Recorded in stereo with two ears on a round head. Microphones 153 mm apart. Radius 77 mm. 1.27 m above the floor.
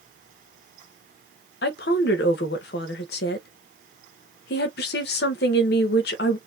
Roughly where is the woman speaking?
Left.